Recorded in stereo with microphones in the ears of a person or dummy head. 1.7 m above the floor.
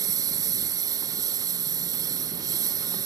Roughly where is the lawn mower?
Centre.